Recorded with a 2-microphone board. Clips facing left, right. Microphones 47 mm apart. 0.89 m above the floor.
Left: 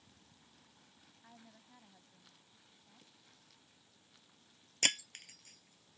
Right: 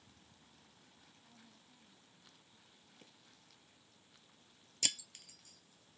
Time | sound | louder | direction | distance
1.2 | a woman speaking | left 7 dB | 85° left | ?
3.0 | a drawer | right 3 dB | 40° right (ahead or behind) | ?
4.8 | breaking glass | left 7 dB | 50° left (ahead or behind) | ?